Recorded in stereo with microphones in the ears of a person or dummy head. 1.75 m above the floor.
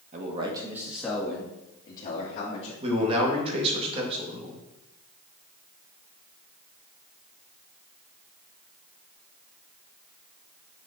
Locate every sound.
0.1 s a man speaking: 40° right (ahead or behind), 1.6 m; by 2.7 s 30° left (ahead or behind), 3.5 m
2.8 s a man speaking: 35° right (ahead or behind), 2.5 m